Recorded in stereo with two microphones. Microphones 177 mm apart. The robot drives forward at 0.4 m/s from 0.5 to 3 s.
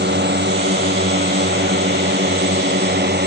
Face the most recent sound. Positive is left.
turn(degrees=-70)  # may be behind; listen again after turning